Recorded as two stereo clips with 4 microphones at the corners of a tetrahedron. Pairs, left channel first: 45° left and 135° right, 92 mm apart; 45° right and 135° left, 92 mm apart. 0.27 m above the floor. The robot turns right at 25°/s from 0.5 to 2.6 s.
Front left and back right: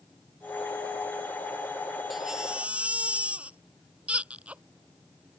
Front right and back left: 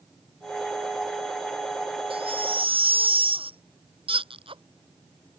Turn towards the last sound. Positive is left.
turn(degrees=150)